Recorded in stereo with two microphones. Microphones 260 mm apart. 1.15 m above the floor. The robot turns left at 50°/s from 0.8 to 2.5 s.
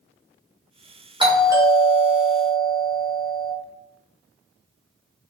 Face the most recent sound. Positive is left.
turn(degrees=5)  # may be behind; listen again after turning